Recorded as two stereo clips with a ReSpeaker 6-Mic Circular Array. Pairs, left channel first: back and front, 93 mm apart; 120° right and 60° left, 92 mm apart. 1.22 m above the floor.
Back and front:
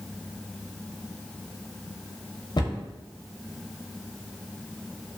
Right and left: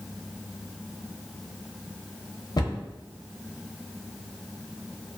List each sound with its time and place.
2.6 s a cupboard door: 155° right, 0.6 m